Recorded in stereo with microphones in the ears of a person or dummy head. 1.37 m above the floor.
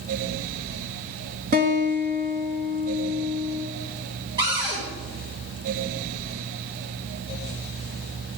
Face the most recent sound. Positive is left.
turn(degrees=-20)  # may be behind; listen again after turning